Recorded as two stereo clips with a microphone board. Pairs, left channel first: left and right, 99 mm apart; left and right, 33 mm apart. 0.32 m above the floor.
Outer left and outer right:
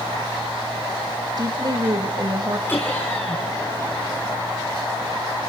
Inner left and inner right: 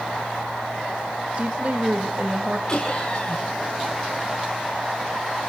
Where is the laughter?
20° left (ahead or behind), 4 m.